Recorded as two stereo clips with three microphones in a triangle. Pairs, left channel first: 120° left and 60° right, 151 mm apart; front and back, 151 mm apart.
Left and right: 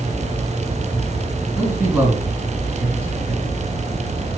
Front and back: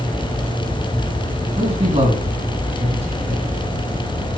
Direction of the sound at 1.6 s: 135° right.